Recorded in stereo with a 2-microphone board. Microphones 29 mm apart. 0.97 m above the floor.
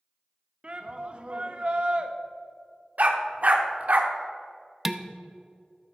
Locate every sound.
0.6 s a shout: 35° right (ahead or behind), 1.0 m
3.0 s a dog barking: 55° right (ahead or behind), 0.9 m
4.8 s dishes clattering: 15° right (ahead or behind), 0.5 m